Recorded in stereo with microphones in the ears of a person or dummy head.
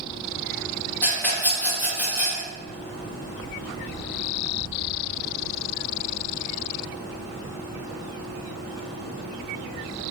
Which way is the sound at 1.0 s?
10° left (ahead or behind).